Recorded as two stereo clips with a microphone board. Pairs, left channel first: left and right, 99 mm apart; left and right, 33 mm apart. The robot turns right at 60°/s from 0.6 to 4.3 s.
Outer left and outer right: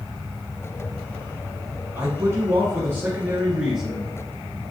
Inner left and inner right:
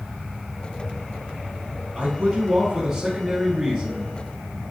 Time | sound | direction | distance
1.9 | a man speaking | 25° right (ahead or behind) | 1.2 m